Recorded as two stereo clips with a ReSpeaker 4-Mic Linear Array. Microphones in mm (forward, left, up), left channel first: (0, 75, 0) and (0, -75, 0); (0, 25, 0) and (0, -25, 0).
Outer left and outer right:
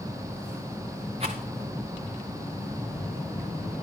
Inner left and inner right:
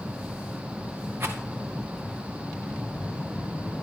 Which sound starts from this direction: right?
A rattle, at 1.2 s.